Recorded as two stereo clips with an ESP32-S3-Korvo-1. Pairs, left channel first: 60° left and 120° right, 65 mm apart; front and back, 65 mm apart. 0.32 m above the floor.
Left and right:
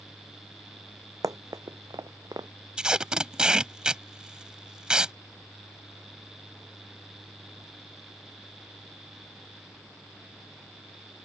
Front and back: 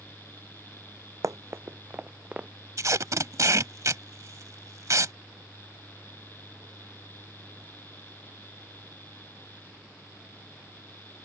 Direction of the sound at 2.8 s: 165° left.